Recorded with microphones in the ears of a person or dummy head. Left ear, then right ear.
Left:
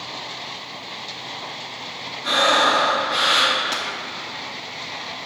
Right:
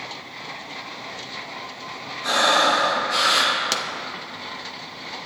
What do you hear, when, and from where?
2.2 s breathing: 70° right (ahead or behind), 1.7 m
3.7 s a pop: 40° right (ahead or behind), 0.7 m